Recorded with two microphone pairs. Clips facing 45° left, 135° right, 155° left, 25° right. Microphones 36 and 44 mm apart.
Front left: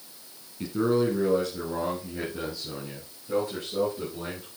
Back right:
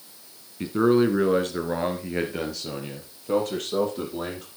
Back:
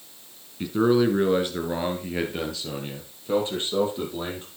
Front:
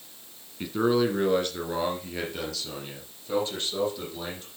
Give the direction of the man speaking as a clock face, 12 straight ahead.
4 o'clock.